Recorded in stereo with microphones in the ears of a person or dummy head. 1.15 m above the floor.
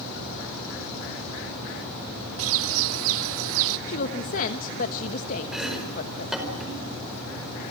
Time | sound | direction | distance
2.4 | a bird | 75° right (ahead or behind) | 1.4 m
3.9 | a woman speaking | 45° left (ahead or behind) | 1.2 m
5.5 | chopping | 5° right (ahead or behind) | 4.5 m